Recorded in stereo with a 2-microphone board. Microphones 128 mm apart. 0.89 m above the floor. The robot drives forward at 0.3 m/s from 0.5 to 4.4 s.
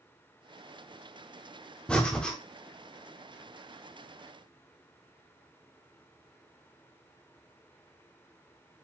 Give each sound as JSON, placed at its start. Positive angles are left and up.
{"t": 1.9, "sound": "breathing", "side_deg": 5, "distance_m": 0.8}